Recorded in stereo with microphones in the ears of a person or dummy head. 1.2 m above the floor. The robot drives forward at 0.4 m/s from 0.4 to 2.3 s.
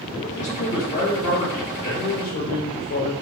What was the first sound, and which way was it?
A man speaking, 45° left (ahead or behind).